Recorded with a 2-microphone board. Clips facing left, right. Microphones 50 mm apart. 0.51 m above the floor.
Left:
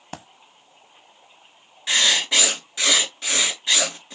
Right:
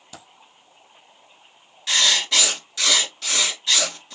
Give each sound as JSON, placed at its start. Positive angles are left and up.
{"t": 0.1, "sound": "a dropped coin", "side_deg": 50, "distance_m": 0.7}
{"t": 1.9, "sound": "writing", "side_deg": 15, "distance_m": 2.5}